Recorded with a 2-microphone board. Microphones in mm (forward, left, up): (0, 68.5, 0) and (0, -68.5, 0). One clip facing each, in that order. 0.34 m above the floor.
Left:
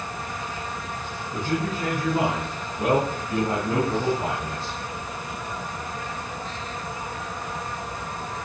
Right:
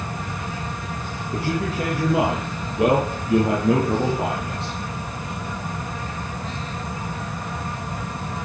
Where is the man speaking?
80° right, 6 m; by 4.8 s 70° right (ahead or behind), 7.5 m.